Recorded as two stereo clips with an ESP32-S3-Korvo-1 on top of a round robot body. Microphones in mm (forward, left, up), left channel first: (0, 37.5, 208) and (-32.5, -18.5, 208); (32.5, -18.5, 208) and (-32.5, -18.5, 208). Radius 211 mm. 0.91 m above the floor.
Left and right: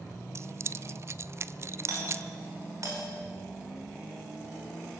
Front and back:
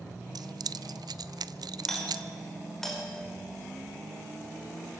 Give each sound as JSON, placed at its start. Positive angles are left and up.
{"t": 0.3, "sound": "keys jangling", "azimuth_deg": -170, "distance_m": 0.5}
{"t": 1.9, "sound": "a doorbell", "azimuth_deg": -85, "distance_m": 6.0}